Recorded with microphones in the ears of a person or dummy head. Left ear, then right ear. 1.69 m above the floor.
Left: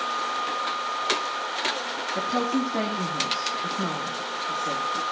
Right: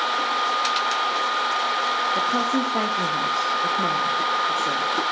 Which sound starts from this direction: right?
A woman speaking, at 2.1 s.